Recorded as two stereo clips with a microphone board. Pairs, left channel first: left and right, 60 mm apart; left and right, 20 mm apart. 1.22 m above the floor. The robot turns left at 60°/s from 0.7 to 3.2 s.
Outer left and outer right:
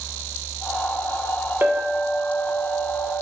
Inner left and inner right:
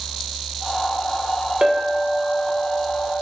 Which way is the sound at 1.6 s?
150° right.